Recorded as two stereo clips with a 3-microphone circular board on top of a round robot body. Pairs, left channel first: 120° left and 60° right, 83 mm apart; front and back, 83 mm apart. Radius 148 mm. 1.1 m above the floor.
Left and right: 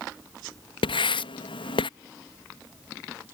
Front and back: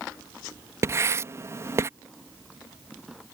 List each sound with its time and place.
0.8 s writing: 120° left